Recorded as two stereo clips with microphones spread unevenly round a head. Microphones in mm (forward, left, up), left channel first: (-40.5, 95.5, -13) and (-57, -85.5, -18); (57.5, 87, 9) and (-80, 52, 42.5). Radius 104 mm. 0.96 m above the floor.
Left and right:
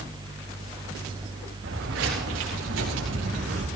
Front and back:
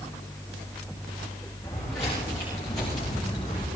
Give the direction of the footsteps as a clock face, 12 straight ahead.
2 o'clock.